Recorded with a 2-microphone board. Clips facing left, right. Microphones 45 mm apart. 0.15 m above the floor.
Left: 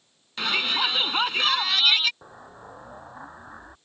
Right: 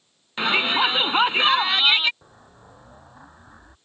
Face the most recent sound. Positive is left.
turn(degrees=25)  # may be behind; listen again after turning